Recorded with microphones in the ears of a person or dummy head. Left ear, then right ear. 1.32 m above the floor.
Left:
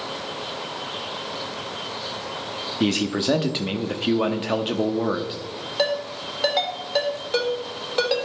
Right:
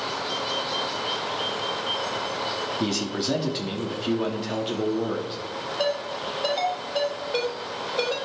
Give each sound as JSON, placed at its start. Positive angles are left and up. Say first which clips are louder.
{"t": 2.8, "sound": "a man speaking", "louder": "left 4 dB", "side_deg": 35, "distance_m": 0.7}
{"t": 5.8, "sound": "a ringtone", "louder": "left 3 dB", "side_deg": 70, "distance_m": 3.5}